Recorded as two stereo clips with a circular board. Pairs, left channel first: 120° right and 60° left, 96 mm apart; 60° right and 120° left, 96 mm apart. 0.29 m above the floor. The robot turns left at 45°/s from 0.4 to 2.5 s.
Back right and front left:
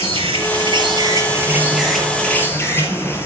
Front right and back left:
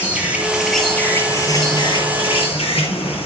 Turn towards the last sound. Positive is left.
turn(degrees=-55)